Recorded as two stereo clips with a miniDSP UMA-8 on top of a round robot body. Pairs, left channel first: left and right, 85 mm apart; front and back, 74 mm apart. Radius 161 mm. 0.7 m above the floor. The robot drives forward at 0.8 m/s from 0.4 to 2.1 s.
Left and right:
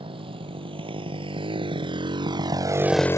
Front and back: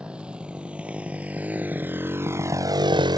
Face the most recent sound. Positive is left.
turn(degrees=145)